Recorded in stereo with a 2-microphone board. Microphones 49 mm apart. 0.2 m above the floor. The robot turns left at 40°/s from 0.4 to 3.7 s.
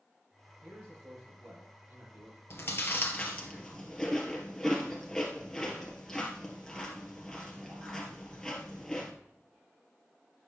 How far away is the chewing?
About 2 m.